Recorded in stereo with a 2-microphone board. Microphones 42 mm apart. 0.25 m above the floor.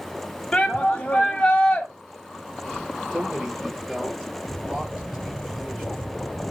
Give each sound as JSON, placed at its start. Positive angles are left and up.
{"t": 0.5, "sound": "a shout", "side_deg": 20, "distance_m": 1.4}
{"t": 3.1, "sound": "a man speaking", "side_deg": -15, "distance_m": 6.0}